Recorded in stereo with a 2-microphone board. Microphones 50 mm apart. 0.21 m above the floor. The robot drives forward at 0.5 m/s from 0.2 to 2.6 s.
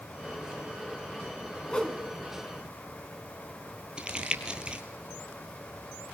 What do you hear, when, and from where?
1.7 s a whoosh: 20° left (ahead or behind), 2.0 m
4.0 s crumpling: 20° right (ahead or behind), 1.7 m